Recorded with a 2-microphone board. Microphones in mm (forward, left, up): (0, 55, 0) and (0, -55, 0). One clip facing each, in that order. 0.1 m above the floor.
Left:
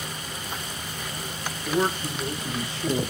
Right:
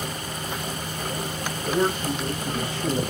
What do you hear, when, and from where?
1.6 s a man speaking: 10° left (ahead or behind), 1.5 m; by 3.0 s 30° left (ahead or behind), 1.6 m